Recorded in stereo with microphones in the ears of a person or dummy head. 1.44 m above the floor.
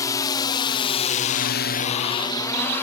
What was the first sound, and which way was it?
A drone, 15° left (ahead or behind).